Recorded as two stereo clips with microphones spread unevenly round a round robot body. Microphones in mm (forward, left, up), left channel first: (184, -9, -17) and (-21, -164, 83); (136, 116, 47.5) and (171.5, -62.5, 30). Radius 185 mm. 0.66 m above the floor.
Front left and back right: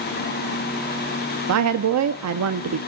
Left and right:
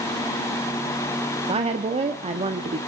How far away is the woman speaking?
About 1.1 m.